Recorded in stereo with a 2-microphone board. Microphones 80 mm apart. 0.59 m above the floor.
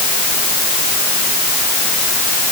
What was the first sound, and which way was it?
Only background noise.